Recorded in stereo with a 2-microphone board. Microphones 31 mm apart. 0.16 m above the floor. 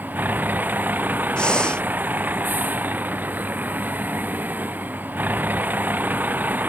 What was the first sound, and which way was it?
A vehicle, 75° right (ahead or behind).